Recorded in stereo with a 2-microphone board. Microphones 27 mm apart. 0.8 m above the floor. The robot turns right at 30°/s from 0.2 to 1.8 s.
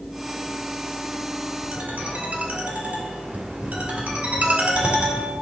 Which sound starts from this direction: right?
A ringtone, at 1.7 s.